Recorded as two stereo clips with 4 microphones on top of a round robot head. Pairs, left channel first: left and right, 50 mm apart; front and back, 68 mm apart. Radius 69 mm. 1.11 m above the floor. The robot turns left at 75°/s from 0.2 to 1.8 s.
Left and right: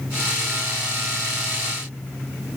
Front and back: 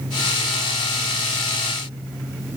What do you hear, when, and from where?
Only background noise.